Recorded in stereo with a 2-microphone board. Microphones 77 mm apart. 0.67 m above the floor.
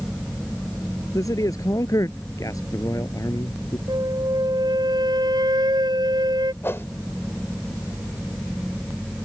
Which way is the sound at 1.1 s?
50° left (ahead or behind).